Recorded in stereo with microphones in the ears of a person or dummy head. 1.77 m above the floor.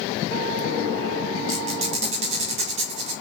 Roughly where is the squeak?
Right.